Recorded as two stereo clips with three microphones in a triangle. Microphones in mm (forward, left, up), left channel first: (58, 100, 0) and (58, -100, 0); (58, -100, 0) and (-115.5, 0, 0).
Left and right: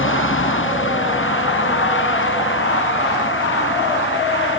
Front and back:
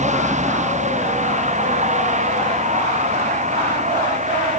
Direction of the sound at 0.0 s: 95° left.